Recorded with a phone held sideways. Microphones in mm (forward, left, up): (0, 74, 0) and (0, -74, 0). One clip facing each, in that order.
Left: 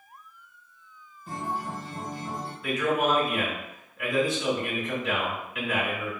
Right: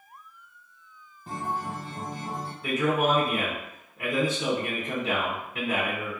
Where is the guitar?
50° right (ahead or behind), 1.5 m.